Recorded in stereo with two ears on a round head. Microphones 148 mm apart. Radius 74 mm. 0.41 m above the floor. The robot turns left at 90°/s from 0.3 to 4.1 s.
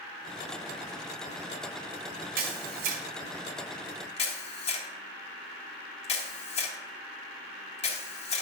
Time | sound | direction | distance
2.4 | a camera shutter | 60° right (ahead or behind) | 3 m